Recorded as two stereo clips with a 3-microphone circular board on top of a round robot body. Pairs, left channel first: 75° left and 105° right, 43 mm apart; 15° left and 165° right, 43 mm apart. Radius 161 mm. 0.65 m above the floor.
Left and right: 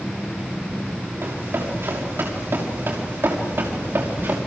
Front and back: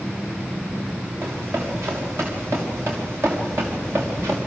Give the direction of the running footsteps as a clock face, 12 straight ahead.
5 o'clock.